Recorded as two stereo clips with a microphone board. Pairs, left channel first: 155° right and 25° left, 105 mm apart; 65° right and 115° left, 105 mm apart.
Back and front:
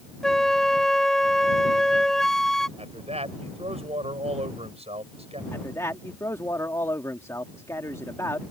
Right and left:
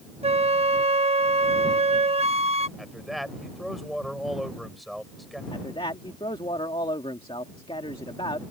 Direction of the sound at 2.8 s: 20° left.